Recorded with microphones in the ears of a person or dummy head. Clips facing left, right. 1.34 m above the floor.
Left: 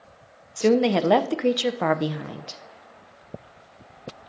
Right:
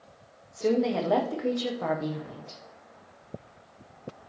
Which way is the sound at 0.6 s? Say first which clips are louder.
Left 6 dB; 75° left (ahead or behind).